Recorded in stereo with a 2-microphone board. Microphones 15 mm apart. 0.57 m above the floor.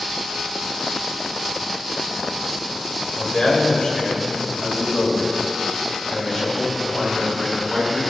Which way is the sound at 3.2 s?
65° left (ahead or behind).